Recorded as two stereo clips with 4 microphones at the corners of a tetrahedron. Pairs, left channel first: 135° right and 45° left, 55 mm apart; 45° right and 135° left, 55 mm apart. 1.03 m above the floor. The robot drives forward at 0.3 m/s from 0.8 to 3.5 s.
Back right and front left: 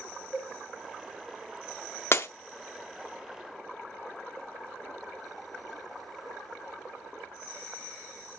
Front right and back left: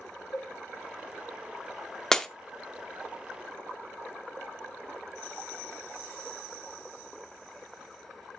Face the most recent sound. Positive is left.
turn(degrees=-145)